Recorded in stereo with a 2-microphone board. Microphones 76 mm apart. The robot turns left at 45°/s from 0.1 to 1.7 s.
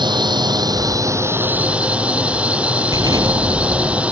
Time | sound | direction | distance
0.0 | a drone | 90° right | ?
2.9 | an explosion | 55° right (ahead or behind) | ?